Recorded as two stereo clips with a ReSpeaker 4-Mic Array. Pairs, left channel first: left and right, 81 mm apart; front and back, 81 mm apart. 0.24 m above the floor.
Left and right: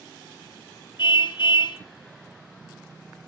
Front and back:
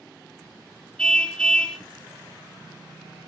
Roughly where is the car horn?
Left.